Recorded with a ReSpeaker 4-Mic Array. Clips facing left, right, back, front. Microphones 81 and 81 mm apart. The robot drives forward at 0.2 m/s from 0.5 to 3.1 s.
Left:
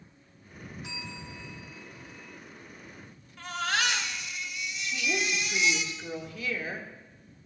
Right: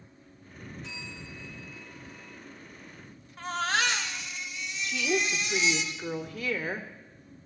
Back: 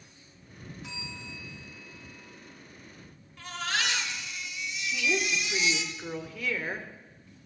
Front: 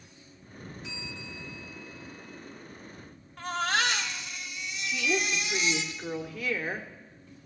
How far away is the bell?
About 4 m.